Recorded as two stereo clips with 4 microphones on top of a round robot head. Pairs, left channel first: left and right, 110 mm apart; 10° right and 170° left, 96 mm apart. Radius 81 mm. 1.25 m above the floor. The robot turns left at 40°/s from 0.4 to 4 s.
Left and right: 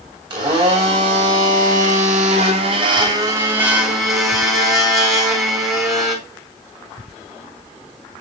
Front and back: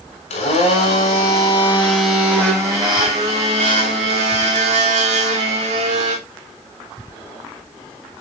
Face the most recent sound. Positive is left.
turn(degrees=180)